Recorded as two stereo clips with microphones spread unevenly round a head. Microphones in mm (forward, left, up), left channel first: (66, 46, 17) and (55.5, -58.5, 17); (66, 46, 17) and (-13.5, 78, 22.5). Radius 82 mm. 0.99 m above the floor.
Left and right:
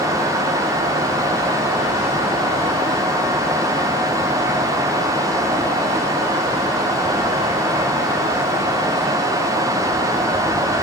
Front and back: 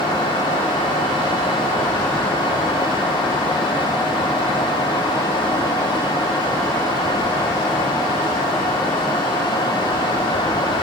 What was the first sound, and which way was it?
Only background noise.